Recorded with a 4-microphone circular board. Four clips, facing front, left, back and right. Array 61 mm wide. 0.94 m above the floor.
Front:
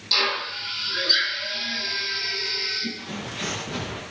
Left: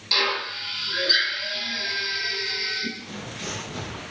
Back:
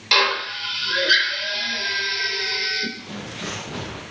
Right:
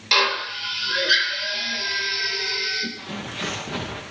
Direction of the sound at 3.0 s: 85° right.